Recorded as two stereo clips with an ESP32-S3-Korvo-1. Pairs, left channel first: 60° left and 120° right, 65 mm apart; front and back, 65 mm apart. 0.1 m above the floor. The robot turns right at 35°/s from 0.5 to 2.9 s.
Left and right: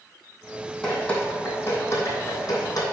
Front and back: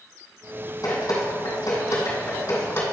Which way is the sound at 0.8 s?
25° right.